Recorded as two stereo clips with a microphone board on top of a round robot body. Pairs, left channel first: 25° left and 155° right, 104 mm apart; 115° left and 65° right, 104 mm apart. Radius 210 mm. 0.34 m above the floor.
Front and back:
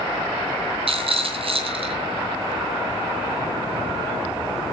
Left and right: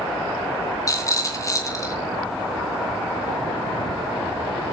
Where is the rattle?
175° left, 3 m.